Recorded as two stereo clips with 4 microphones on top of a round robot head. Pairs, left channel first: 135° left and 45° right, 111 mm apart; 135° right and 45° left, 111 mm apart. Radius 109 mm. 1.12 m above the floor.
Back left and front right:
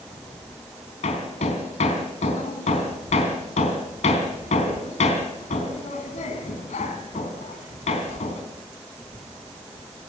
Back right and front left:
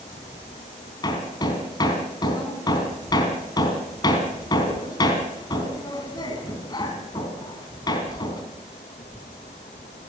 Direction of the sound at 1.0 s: 165° left.